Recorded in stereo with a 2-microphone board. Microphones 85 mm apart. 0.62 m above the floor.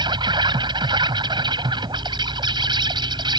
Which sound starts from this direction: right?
An insect, at 0.0 s.